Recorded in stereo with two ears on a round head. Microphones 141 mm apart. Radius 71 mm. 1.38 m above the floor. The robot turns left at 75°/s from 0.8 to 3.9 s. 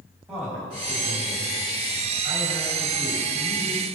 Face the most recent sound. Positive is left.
turn(degrees=125)